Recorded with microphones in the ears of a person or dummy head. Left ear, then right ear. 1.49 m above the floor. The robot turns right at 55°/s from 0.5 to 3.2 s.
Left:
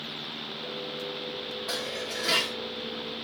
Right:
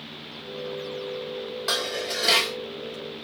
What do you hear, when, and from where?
1.7 s dishes clattering: 65° right, 1.1 m; by 2.6 s 15° right, 1.1 m